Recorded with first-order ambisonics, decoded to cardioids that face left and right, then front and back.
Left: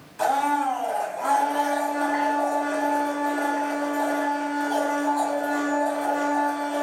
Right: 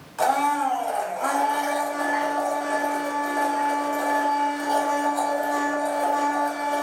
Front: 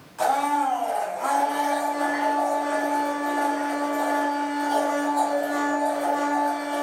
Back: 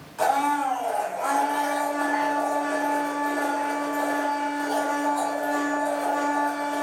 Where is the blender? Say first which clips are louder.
Right 1 dB, even; 85° right, 1.0 m.